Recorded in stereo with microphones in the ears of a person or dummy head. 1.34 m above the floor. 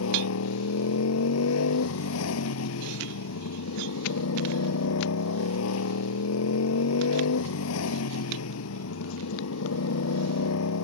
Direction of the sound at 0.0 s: 80° left.